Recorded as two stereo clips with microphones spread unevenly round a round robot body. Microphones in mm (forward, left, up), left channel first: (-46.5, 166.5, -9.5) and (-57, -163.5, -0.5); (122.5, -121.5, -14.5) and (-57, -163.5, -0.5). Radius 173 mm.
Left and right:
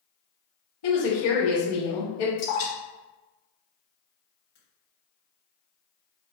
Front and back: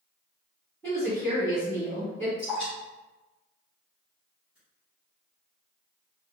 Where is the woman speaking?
100° left, 1.4 m.